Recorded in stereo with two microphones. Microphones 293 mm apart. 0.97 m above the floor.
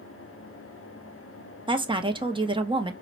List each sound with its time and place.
1.7 s a woman speaking: 15° right (ahead or behind), 0.6 m